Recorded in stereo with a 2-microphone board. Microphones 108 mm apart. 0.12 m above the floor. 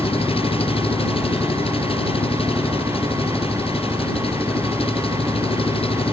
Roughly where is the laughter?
I don't hear laughter.